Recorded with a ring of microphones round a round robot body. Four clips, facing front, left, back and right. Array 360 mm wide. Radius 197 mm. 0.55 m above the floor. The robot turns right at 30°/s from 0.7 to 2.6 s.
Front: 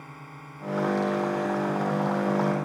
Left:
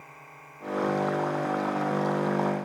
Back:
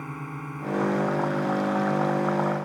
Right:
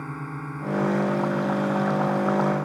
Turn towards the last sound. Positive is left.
turn(degrees=-65)